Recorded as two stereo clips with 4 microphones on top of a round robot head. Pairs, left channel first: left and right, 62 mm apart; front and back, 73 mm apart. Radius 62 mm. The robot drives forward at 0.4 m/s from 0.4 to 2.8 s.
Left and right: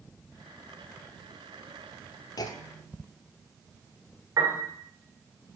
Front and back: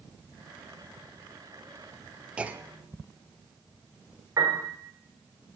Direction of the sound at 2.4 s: 105° left.